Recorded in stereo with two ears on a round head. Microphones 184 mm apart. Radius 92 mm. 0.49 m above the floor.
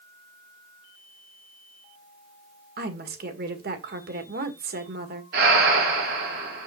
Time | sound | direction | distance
2.8 | a woman speaking | 50° right (ahead or behind) | 1.8 m
5.3 | breathing | 50° right (ahead or behind) | 3.5 m